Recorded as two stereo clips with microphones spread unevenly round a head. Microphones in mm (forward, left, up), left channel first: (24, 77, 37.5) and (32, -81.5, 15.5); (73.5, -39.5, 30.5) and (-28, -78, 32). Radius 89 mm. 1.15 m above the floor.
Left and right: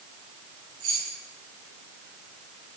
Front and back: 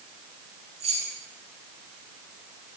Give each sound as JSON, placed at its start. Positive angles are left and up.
{"t": 0.8, "sound": "keys jangling", "azimuth_deg": -135, "distance_m": 9.0}